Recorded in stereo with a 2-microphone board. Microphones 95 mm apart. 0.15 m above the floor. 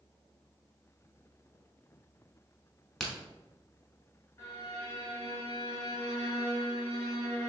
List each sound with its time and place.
3.0 s a crack: 5° left (ahead or behind), 1.1 m
4.4 s a violin: 35° left (ahead or behind), 1.3 m